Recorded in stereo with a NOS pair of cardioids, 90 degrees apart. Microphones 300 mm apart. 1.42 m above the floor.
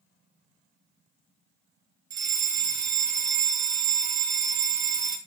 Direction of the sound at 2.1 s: 65° right.